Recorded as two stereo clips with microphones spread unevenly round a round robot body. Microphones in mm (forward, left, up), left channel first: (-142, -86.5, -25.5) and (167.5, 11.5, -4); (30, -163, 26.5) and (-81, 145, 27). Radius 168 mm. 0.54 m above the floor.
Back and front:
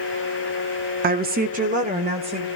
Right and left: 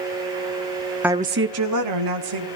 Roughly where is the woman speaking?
Ahead left.